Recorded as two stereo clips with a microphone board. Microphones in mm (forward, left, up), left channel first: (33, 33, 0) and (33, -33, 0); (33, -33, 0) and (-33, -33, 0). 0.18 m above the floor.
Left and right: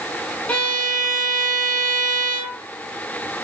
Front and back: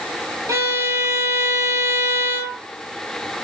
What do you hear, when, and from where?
0.5 s a violin: 150° left, 0.7 m